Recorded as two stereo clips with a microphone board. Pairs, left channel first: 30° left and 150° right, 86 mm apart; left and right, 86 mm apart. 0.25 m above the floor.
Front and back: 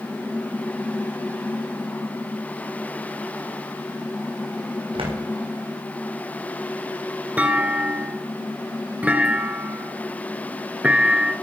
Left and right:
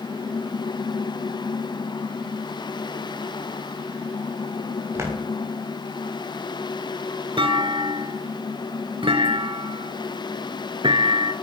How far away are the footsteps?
About 4.5 m.